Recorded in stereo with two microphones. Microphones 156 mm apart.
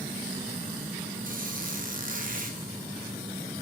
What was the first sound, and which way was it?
A squeak, 60° right (ahead or behind).